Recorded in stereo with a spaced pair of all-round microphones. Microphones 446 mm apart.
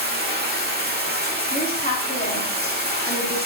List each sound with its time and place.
0.0 s running water: 20° right (ahead or behind), 1.6 m
1.5 s a woman speaking: 20° left (ahead or behind), 2.5 m